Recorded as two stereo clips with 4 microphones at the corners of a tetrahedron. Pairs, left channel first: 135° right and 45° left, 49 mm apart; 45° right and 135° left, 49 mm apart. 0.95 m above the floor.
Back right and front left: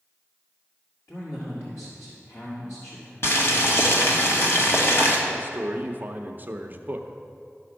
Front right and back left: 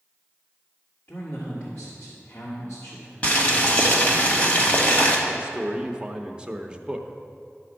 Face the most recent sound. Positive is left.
turn(degrees=75)